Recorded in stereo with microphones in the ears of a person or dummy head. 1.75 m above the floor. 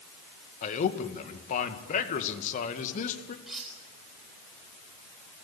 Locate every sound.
0.6 s a man speaking: 45° left (ahead or behind), 2 m
3.5 s cutlery clinking: centre (ahead or behind), 3.5 m